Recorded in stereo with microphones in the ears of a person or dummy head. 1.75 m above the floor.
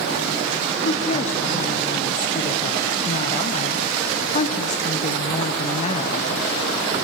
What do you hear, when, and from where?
0.8 s a woman speaking: 45° left (ahead or behind), 1.2 m